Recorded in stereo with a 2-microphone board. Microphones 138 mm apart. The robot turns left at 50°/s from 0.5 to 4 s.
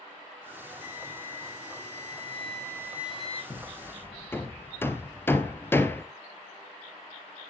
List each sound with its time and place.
0.8 s a flute: 60° right, 1.9 m; by 3.4 s 170° left, 1.9 m
3.5 s hammering: 35° left (ahead or behind), 1.0 m; by 6.0 s 15° left (ahead or behind), 1.0 m